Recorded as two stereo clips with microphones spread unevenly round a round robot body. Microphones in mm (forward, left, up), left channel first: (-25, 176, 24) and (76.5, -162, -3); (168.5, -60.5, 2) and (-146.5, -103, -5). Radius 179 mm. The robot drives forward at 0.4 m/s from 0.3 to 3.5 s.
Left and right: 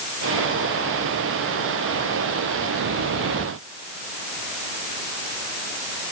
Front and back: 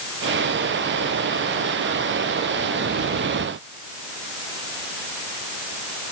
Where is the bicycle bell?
No bicycle bell in this recording.